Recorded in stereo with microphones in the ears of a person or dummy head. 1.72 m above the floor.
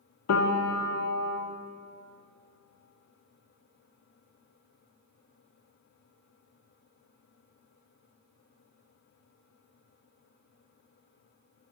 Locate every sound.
0.3 s a piano: 85° left, 0.6 m